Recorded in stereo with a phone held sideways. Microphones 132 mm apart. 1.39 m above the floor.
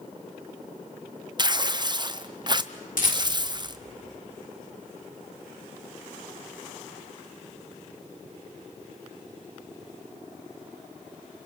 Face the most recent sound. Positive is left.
turn(degrees=75)  # may be behind; listen again after turning